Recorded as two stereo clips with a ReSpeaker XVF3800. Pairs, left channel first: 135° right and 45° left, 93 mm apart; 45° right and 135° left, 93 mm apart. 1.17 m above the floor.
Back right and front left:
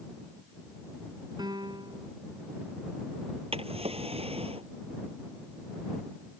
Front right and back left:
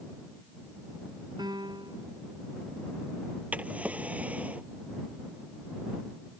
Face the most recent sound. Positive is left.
turn(degrees=60)